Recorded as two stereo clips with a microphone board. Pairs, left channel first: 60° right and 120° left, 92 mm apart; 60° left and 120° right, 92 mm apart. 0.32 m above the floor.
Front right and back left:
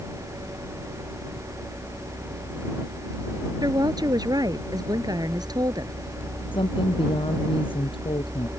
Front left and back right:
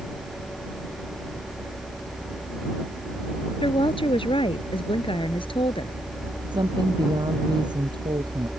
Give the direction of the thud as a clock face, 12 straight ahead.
No thud in this recording.